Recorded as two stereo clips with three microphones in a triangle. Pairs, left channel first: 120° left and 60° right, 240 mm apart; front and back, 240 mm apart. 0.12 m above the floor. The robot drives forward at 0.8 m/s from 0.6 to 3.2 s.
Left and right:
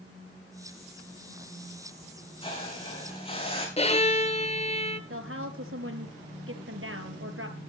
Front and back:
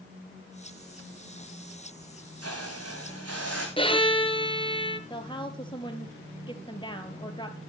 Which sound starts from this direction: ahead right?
A woman speaking, at 5.1 s.